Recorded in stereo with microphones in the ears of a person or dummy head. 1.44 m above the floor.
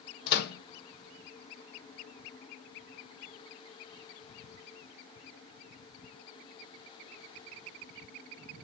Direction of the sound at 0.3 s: 65° left (ahead or behind).